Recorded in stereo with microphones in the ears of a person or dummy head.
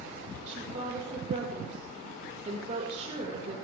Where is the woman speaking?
35° right (ahead or behind), 5 m.